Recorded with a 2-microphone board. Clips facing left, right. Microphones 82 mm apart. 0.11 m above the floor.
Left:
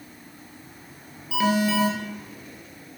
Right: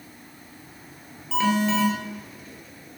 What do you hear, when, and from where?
1.3 s an alarm: 10° left (ahead or behind), 2.5 m